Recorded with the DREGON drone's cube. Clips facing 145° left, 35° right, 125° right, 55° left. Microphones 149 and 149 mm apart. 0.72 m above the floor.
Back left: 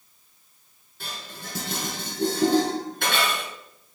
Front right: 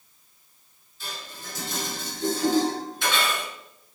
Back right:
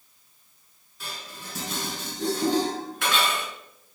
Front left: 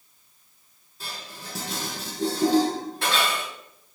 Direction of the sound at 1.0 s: 115° left.